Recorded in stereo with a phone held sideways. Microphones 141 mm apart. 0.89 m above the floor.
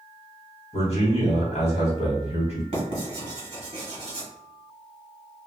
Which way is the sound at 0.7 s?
50° left (ahead or behind).